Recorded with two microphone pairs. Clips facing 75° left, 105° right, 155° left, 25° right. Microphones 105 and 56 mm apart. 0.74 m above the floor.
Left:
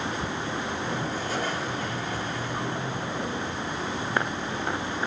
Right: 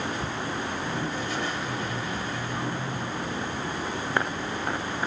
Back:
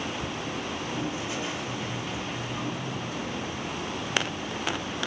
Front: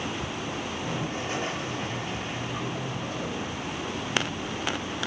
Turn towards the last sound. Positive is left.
turn(degrees=25)